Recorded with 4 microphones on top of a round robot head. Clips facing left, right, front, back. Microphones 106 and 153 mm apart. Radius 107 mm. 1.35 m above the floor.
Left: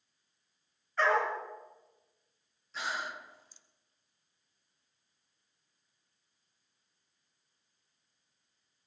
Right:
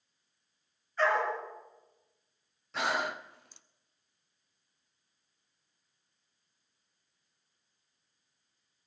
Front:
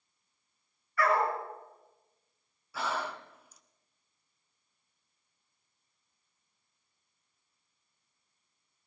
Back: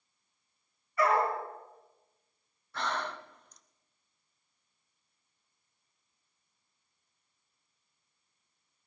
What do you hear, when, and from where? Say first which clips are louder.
1.0 s a dog barking: even, back 1 dB; 110° left, 5 m
2.7 s breathing: right 6 dB, even; 85° right, 0.5 m